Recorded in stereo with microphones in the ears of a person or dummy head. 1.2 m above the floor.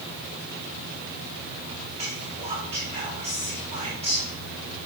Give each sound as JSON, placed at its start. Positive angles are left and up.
{"t": 2.0, "sound": "whispering", "side_deg": -35, "distance_m": 2.0}